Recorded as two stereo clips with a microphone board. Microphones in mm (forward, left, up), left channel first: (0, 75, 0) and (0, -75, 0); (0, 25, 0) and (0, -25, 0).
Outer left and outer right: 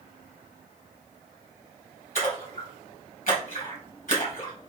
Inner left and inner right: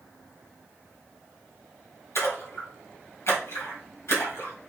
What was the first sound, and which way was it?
A splash, 70° left (ahead or behind).